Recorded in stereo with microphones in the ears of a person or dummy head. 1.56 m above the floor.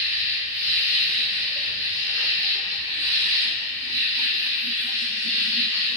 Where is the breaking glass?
No breaking glass in this recording.